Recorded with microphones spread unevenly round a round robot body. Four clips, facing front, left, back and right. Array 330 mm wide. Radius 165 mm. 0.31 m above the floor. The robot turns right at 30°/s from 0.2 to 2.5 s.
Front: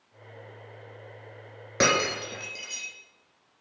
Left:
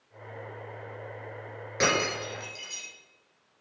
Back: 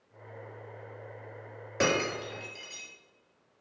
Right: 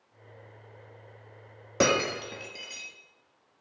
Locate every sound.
1.8 s breaking glass: 45° right, 2.5 m; by 2.9 s 25° right, 2.5 m